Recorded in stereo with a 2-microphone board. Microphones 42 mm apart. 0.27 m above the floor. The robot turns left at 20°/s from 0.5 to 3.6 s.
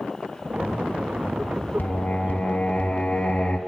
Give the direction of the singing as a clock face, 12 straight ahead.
10 o'clock.